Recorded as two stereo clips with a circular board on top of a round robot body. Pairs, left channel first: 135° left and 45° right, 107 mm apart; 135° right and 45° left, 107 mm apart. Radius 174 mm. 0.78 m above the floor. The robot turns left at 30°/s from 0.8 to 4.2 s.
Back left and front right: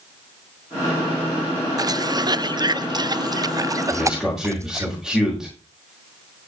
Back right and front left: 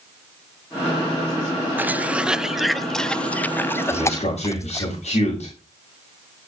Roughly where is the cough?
Ahead.